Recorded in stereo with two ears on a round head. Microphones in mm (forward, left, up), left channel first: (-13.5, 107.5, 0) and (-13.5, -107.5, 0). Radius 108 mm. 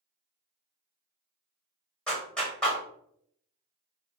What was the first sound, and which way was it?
A clap, 5° left (ahead or behind).